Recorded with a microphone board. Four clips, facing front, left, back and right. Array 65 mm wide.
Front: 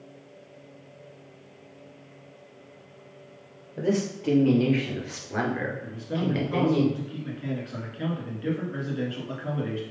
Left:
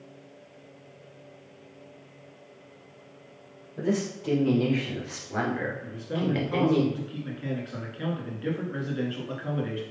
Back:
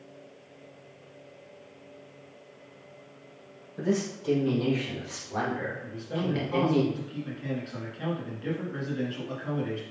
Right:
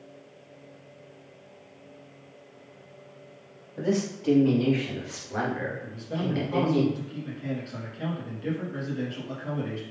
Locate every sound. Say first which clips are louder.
3.8 s a man speaking: right 1 dB, front 2 dB; 10° right, 2.5 m; by 6.8 s 70° left, 1.7 m
5.8 s a man speaking: left 2 dB, front 2 dB; 65° left, 1.6 m